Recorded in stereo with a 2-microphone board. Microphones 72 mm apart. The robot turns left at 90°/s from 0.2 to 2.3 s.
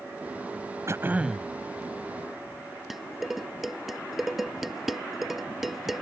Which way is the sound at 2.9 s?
5° right (ahead or behind).